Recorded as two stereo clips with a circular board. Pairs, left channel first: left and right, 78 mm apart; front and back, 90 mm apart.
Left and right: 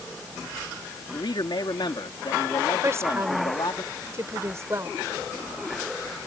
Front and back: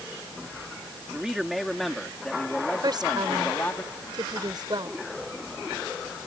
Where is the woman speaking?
145° right.